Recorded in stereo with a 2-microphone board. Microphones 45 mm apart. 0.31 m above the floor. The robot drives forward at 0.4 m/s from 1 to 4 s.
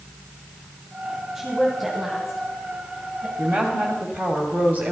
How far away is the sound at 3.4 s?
About 1.3 m.